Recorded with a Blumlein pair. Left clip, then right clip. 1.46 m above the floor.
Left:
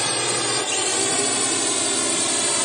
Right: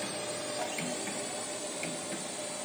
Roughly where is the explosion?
I don't hear an explosion.